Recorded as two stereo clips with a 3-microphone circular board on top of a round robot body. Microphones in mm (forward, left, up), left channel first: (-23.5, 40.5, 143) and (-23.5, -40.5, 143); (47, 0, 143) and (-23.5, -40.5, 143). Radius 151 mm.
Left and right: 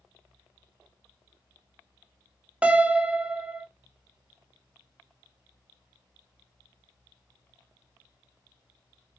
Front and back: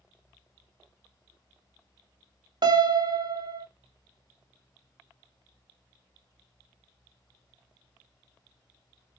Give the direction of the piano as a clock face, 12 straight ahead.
5 o'clock.